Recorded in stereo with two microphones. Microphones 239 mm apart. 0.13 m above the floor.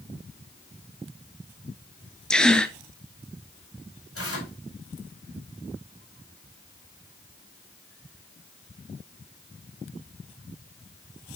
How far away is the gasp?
About 0.7 m.